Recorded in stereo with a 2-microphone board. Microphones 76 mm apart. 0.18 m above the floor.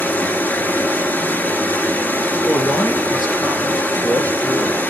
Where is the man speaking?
65° left (ahead or behind), 3 m.